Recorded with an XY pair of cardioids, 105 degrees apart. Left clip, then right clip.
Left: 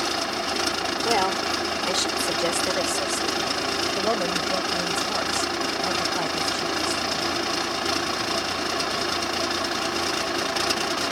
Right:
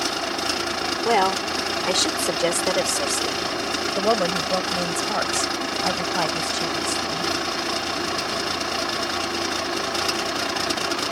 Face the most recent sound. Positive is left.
turn(degrees=-35)